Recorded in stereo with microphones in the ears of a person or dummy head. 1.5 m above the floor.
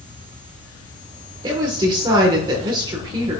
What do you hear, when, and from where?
1.4 s a woman speaking: 25° right (ahead or behind), 1.6 m